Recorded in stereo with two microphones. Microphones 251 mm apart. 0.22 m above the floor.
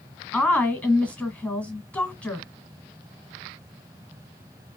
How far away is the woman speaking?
About 1.5 m.